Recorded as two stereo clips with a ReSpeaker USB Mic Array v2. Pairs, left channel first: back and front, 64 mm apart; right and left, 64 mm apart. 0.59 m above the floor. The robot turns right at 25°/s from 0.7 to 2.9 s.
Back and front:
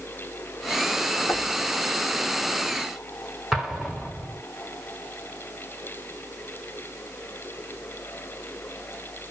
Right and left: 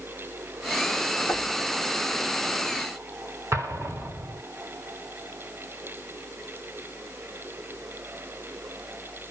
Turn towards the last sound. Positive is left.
turn(degrees=80)